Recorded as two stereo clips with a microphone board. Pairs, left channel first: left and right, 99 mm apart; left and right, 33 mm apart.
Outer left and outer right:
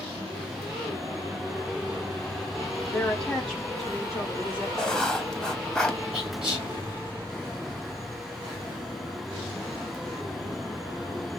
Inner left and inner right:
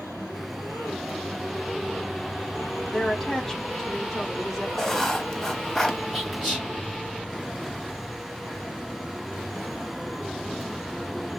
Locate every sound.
2.9 s a woman speaking: 10° left (ahead or behind), 2 m; by 4.7 s 10° right (ahead or behind), 2.5 m
4.8 s writing: 5° left (ahead or behind), 0.9 m
6.1 s whispering: 10° right (ahead or behind), 4 m